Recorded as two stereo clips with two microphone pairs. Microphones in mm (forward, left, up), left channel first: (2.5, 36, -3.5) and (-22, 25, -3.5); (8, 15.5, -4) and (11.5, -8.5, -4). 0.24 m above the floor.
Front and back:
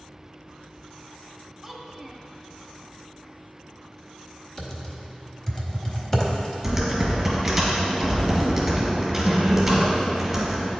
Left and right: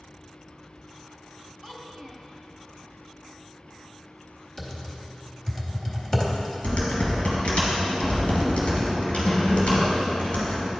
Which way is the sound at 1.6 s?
130° left.